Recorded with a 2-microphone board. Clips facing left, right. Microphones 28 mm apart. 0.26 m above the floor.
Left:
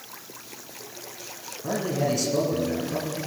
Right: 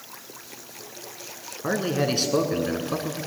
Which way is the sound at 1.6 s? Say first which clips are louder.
Right 2 dB; 55° right (ahead or behind).